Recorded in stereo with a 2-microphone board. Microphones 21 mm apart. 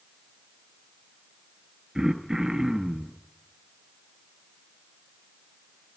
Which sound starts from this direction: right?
Throat clearing, at 1.9 s.